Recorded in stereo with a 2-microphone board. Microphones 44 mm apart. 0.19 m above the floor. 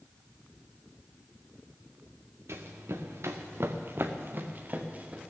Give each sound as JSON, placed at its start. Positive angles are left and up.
{"t": 2.5, "sound": "running footsteps", "side_deg": -80, "distance_m": 1.9}